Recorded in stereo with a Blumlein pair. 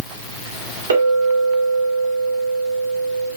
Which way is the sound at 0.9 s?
65° right.